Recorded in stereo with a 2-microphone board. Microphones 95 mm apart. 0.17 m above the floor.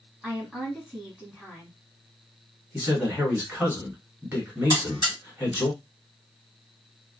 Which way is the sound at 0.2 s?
Centre (ahead or behind).